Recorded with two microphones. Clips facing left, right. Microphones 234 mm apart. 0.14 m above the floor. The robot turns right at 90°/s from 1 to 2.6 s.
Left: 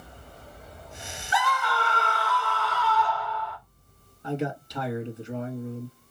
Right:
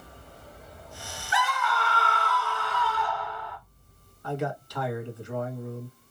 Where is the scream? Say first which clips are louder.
Left 1 dB; 90° left, 1.8 m; by 3.6 s 155° right, 1.8 m.